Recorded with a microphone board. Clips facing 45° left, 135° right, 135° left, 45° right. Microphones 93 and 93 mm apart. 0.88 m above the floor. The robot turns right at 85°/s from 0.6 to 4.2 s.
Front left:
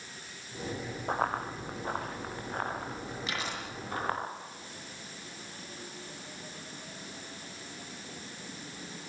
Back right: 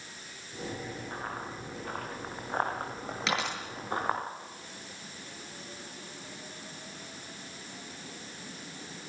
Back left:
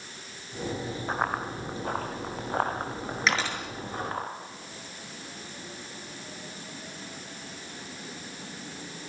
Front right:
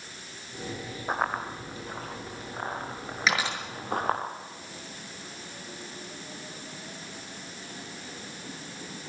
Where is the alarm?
I don't hear an alarm.